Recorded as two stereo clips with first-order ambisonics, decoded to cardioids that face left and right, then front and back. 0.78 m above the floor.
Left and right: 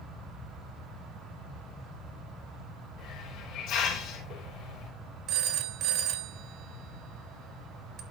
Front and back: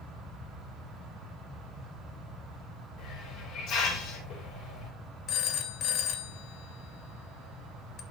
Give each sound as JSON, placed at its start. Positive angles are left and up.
{"t": 3.0, "sound": "a hiss", "azimuth_deg": 55, "distance_m": 3.5}
{"t": 5.3, "sound": "a phone ringing", "azimuth_deg": -50, "distance_m": 1.0}